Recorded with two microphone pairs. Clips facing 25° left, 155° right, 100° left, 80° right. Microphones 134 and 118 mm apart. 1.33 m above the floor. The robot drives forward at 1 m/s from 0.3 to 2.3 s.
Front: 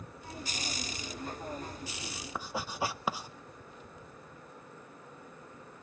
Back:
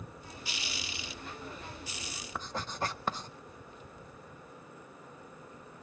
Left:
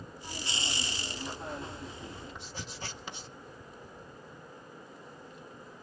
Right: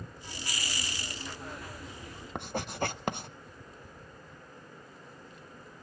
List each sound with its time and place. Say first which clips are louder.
2.4 s writing: front 1 dB, right 10 dB; 55° right, 0.7 m